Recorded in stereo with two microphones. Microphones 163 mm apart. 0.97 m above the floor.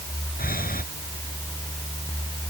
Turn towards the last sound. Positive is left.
turn(degrees=65)  # may be behind; listen again after turning